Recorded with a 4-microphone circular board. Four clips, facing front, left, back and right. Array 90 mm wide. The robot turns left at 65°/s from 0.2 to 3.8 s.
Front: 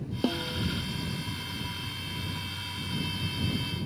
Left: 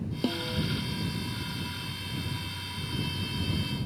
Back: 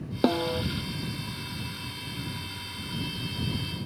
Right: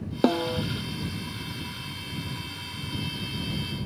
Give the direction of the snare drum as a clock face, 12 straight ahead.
4 o'clock.